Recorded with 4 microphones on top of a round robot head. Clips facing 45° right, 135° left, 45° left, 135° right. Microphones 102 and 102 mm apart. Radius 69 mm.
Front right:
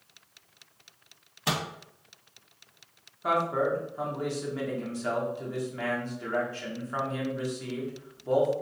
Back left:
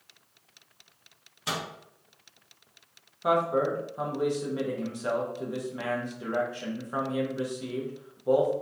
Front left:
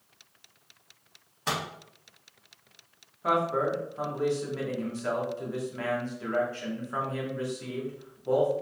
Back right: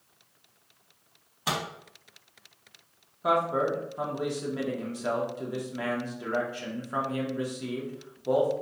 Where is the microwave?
55° right, 0.6 m.